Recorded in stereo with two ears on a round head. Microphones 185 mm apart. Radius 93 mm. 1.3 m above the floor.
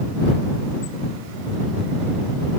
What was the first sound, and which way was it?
Only background noise.